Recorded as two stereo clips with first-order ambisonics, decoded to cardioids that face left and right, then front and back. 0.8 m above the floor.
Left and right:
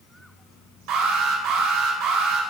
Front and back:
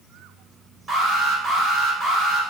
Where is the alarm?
95° right, 3 m.